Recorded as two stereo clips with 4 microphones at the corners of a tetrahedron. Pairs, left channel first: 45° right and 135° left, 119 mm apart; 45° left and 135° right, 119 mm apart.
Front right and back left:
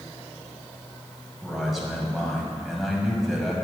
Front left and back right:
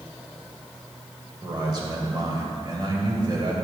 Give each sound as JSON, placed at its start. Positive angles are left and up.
{"t": 1.4, "sound": "a man speaking", "azimuth_deg": -140, "distance_m": 1.7}